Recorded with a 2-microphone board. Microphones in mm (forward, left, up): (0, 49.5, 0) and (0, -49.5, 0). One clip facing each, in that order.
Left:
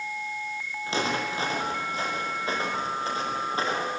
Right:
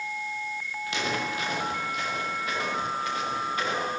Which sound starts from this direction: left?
Footsteps, at 0.9 s.